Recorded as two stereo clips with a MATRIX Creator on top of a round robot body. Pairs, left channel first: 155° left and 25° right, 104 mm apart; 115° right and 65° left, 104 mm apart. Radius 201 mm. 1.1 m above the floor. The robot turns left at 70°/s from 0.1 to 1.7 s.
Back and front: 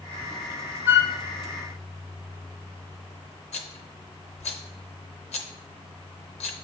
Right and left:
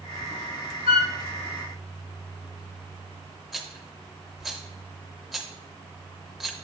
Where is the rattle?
160° left, 0.6 m.